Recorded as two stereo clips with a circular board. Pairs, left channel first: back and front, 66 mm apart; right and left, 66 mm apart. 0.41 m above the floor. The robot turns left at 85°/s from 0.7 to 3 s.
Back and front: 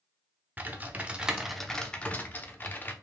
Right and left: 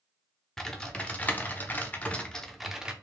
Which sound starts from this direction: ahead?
Typing on a keyboard, at 0.6 s.